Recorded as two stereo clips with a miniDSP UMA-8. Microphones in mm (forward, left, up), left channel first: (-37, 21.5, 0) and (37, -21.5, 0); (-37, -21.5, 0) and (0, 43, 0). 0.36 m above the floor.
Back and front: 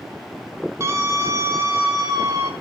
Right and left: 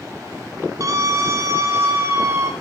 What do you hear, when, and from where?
0.8 s a scream: 25° left, 4 m; by 2.5 s 10° left, 3.5 m